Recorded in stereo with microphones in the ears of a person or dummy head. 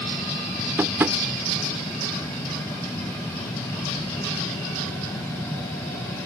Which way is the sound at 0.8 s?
10° right (ahead or behind).